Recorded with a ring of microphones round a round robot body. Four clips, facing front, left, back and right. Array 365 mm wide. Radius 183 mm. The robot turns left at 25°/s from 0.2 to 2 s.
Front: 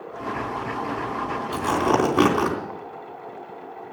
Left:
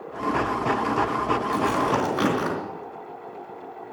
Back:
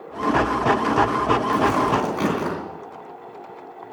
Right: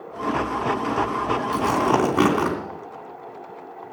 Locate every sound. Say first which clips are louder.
1.5 s tearing paper: right 5 dB, back 2 dB; 35° right, 3 m; by 2.5 s 45° right, 3 m